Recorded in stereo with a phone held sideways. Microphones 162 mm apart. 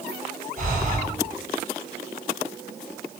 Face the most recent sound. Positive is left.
turn(degrees=-55)  # may be behind; listen again after turning